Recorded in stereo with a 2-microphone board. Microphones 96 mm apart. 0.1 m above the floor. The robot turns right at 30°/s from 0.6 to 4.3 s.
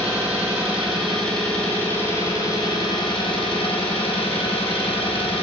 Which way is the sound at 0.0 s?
10° right.